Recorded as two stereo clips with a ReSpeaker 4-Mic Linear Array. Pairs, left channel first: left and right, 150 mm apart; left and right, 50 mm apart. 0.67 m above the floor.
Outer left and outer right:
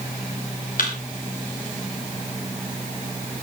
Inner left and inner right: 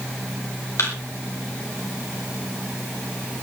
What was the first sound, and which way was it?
A thud, 70° left (ahead or behind).